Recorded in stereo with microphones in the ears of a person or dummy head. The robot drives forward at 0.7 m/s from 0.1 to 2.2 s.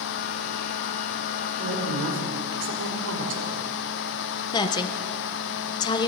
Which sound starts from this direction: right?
A woman speaking, at 1.6 s.